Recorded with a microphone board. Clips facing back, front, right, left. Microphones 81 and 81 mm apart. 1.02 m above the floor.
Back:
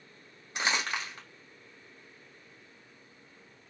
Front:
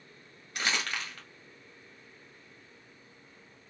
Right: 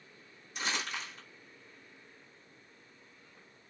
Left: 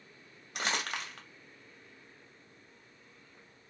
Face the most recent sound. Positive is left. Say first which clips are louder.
# back 2 dB, left 2 dB
turn(degrees=110)